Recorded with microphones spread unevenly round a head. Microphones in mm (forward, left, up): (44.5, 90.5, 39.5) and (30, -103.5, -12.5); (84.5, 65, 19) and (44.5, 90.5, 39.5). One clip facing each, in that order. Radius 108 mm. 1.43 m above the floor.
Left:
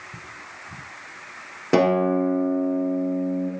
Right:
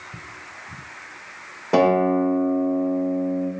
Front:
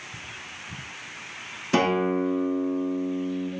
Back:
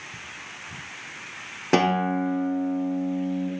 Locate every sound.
1.7 s a guitar: 145° left, 3.5 m